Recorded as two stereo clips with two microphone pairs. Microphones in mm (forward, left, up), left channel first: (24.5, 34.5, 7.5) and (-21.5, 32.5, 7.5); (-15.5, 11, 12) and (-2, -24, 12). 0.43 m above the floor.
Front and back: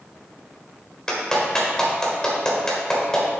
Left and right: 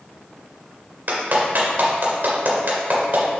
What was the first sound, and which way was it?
A clap, 70° right.